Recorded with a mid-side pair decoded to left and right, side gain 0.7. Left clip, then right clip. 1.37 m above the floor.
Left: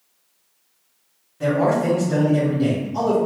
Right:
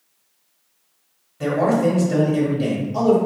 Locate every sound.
1.4 s a man speaking: 10° right, 1.4 m